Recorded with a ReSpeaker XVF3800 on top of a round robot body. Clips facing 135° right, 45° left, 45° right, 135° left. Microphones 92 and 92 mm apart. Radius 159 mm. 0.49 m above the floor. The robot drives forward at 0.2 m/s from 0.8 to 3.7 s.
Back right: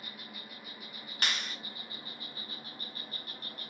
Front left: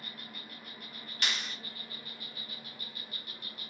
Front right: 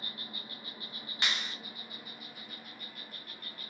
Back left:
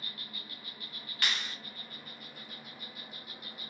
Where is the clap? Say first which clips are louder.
Back right 1 dB, even; 110° right, 1.0 m; by 1.6 s 115° right, 1.0 m.